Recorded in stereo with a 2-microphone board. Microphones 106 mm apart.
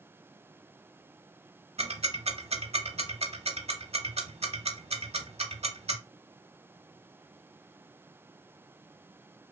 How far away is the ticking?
About 0.6 m.